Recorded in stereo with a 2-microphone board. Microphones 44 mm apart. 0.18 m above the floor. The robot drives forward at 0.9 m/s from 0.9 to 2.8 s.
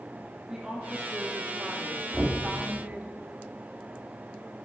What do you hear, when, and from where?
0.5 s a woman speaking: 15° right (ahead or behind), 2.0 m; by 3.1 s 30° right (ahead or behind), 1.1 m
2.1 s knocking: 10° left (ahead or behind), 4 m